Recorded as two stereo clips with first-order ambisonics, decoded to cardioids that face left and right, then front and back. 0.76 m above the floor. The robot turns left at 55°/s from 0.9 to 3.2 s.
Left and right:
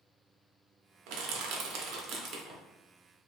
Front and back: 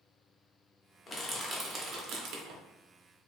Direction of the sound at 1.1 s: 70° right.